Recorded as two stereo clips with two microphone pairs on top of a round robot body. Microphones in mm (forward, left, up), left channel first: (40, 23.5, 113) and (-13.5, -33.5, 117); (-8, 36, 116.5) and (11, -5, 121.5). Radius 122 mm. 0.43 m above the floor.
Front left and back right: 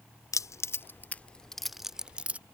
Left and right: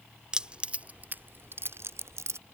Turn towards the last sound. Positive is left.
turn(degrees=-60)